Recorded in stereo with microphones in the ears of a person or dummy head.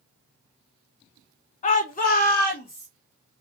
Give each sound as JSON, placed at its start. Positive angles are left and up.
{"t": 1.6, "sound": "a shout", "side_deg": 35, "distance_m": 0.6}